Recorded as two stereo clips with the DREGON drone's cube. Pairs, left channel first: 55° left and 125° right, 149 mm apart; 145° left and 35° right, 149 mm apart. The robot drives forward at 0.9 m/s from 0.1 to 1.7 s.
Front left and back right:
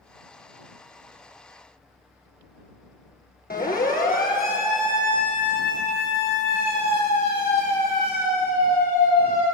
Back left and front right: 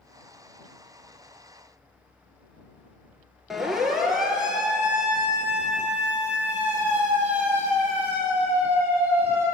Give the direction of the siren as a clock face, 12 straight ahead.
10 o'clock.